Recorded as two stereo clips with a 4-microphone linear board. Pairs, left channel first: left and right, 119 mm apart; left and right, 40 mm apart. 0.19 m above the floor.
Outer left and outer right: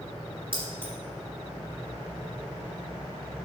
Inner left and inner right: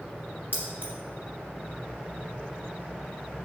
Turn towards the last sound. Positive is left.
turn(degrees=-45)  # may be behind; listen again after turning